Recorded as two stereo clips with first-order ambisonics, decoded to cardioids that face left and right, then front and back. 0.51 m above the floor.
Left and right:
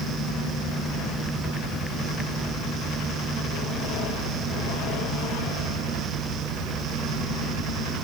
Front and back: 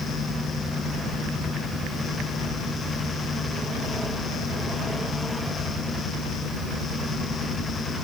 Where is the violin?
I don't hear a violin.